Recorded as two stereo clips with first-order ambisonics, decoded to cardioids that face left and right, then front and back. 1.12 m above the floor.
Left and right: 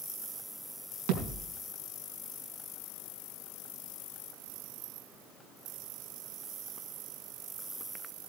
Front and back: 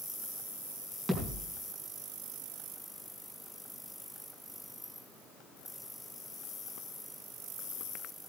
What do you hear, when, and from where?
1.1 s a thud: 100° right, 4 m